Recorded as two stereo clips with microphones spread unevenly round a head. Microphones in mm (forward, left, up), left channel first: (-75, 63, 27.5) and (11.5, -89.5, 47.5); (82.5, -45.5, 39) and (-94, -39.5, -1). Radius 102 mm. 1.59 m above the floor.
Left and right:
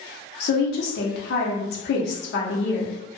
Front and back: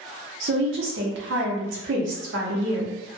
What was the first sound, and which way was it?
A woman speaking, 145° left.